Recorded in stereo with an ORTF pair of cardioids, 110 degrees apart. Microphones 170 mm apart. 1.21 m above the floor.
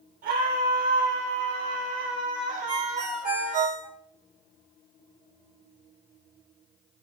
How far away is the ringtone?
About 5 m.